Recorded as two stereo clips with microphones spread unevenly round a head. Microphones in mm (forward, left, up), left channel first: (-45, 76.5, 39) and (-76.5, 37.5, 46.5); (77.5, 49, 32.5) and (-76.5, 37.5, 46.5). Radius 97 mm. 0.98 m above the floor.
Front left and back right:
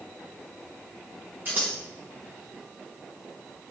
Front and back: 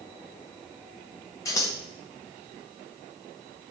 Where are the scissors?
65° right, 1.2 m.